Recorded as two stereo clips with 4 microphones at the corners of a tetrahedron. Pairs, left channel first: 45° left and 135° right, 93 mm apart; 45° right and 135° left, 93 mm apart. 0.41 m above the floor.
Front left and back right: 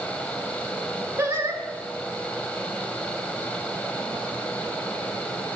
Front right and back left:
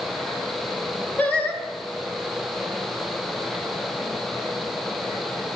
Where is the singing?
100° right, 0.8 m.